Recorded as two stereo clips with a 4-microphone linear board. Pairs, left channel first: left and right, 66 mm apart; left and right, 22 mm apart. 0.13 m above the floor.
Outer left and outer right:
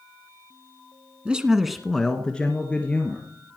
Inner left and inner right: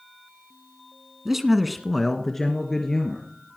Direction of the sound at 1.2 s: 15° right (ahead or behind).